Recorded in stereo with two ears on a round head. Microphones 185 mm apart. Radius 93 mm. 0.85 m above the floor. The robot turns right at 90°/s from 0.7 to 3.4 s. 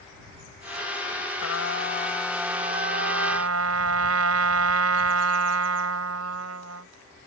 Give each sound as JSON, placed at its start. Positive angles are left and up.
{"t": 1.4, "sound": "a trumpet", "azimuth_deg": 90}